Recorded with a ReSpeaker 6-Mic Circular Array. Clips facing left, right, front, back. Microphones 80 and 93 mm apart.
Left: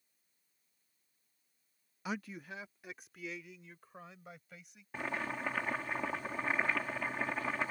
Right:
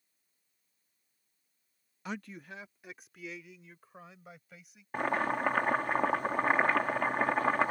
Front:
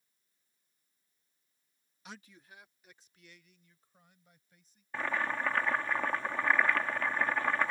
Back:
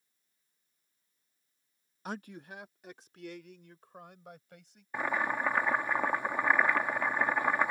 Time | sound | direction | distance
2.0 | a man speaking | 175° left | ?
4.9 | boiling | 105° right | ?